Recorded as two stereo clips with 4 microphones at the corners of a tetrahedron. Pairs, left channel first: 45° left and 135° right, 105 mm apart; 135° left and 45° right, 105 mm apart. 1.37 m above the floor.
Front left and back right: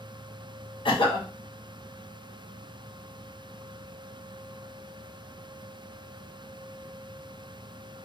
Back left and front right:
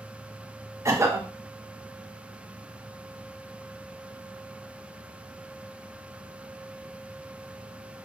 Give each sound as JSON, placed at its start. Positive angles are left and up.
{"t": 0.8, "sound": "a cough", "azimuth_deg": 15, "distance_m": 0.7}